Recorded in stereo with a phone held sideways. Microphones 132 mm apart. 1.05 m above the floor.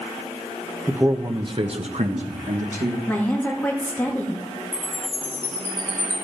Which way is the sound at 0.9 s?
10° right (ahead or behind).